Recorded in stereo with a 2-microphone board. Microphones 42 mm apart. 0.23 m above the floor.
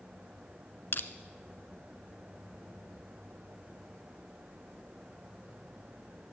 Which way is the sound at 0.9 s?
55° left (ahead or behind).